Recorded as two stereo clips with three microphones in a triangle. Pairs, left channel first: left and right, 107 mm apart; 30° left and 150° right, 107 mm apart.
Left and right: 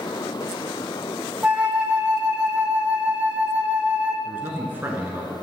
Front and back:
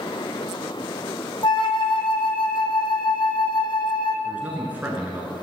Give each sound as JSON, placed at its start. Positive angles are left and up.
{"t": 1.4, "sound": "a flute", "azimuth_deg": -10, "distance_m": 0.8}
{"t": 4.2, "sound": "a man speaking", "azimuth_deg": -110, "distance_m": 1.1}